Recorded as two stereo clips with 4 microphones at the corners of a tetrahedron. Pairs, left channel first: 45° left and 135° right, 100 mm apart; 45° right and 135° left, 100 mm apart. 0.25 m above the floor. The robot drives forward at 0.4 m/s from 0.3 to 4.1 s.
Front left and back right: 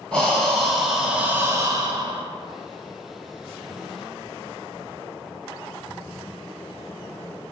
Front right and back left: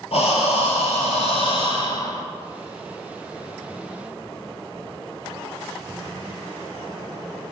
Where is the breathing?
35° right, 0.8 m; by 2.2 s 105° right, 0.5 m.